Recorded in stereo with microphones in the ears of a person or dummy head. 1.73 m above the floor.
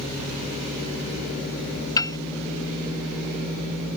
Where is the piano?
20° left (ahead or behind).